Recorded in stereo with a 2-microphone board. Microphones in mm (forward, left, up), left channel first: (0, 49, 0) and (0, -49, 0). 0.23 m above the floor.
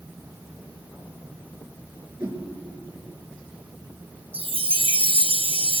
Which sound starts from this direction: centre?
A whoosh, at 2.2 s.